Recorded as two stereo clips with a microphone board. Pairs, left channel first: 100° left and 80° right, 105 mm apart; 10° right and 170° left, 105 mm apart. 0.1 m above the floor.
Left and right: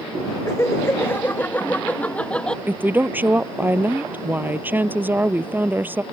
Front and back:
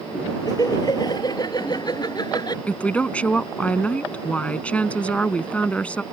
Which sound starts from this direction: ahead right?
A woman speaking, at 2.7 s.